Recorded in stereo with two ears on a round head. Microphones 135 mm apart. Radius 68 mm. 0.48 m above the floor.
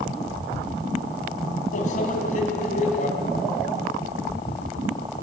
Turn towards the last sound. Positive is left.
turn(degrees=55)  # may be behind; listen again after turning